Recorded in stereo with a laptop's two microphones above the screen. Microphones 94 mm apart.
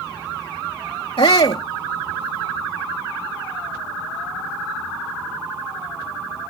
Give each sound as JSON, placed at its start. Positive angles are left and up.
{"t": 1.2, "sound": "a shout", "side_deg": 75}